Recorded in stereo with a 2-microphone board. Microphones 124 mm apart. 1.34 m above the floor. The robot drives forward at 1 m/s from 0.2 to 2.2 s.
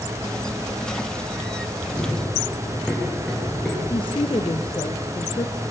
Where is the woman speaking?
45° left (ahead or behind), 1.1 m.